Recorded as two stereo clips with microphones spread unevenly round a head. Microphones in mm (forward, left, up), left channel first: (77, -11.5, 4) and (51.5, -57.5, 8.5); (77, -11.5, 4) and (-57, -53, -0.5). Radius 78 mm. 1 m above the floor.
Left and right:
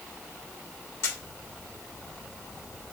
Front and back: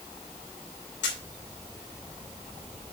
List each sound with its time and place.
1.0 s a camera shutter: 30° left, 2.5 m